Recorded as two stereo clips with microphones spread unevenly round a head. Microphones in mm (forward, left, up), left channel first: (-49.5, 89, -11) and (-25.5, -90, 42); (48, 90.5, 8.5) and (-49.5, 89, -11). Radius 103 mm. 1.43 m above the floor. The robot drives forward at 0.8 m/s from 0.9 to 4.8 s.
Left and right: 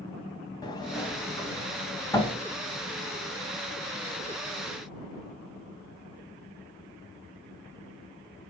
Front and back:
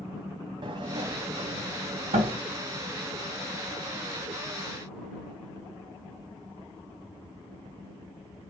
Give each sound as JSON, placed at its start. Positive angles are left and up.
{"t": 0.6, "sound": "a sliding door", "azimuth_deg": 180, "distance_m": 0.9}